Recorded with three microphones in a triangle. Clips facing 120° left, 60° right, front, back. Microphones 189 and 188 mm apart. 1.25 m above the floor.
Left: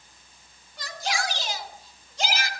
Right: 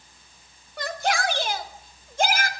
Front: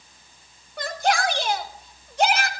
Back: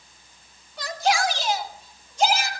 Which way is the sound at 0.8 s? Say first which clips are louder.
Right 5 dB, even; 35° right.